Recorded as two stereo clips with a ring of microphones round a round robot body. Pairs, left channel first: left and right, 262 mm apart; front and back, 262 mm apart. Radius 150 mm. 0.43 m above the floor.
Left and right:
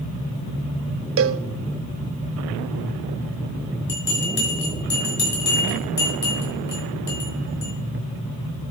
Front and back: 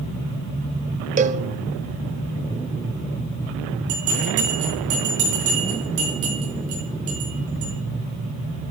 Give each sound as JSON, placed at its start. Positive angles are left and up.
{"t": 1.2, "sound": "a cowbell", "azimuth_deg": -120, "distance_m": 0.6}
{"t": 3.9, "sound": "a bell", "azimuth_deg": 140, "distance_m": 4.5}